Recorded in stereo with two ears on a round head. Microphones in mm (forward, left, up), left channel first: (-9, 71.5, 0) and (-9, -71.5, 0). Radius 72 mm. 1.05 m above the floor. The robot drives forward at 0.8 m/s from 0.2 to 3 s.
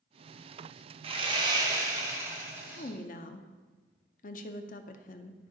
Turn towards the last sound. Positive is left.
turn(degrees=55)  # may be behind; listen again after turning